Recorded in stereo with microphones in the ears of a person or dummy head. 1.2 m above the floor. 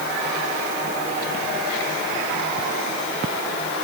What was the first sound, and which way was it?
Only background noise.